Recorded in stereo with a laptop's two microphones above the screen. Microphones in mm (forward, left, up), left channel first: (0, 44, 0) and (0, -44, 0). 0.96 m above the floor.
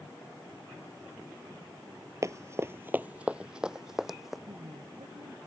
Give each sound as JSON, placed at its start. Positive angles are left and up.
{"t": 2.2, "sound": "running footsteps", "side_deg": -35}
{"t": 4.5, "sound": "a woman speaking", "side_deg": -70}